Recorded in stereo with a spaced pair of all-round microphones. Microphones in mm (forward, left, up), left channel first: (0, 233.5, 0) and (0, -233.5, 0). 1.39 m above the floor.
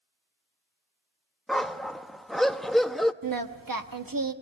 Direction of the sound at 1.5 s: Centre (ahead or behind).